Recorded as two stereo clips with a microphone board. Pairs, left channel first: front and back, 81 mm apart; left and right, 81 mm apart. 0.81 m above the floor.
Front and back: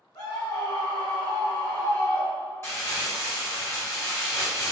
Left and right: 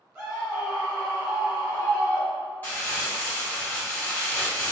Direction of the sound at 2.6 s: 35° left.